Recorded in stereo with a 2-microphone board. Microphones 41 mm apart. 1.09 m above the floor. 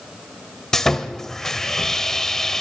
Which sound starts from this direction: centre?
Sawing, at 0.7 s.